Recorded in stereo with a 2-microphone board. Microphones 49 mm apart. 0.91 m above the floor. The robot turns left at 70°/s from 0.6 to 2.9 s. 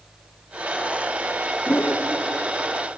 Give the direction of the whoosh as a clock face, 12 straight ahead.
8 o'clock.